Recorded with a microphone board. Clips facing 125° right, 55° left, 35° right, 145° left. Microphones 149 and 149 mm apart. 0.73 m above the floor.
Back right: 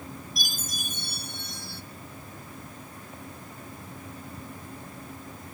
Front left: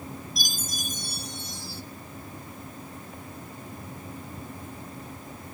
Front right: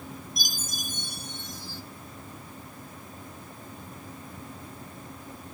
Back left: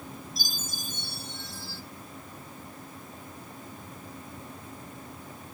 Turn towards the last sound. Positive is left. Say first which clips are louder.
# front left 2 dB, front right 1 dB
turn(degrees=-105)